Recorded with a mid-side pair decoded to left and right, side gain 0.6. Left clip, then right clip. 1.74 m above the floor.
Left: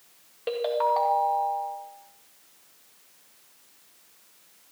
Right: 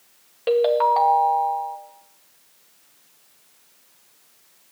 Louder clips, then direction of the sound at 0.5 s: Right 7 dB; 25° right.